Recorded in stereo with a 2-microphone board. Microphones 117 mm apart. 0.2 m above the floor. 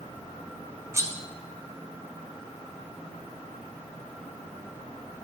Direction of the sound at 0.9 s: 25° right (ahead or behind).